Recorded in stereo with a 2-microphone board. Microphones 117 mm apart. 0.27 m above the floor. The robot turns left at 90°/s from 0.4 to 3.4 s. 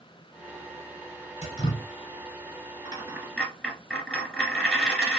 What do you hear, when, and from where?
1.4 s dripping: 75° left, 1.0 m; by 1.9 s 30° left, 1.0 m
2.9 s a dropped coin: 140° right, 1.1 m; by 5.2 s 170° left, 1.1 m